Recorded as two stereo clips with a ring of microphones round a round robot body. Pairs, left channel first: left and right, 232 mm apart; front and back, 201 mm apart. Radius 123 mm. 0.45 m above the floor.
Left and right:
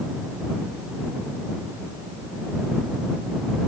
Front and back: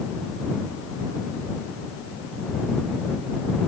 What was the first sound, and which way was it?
Only background noise.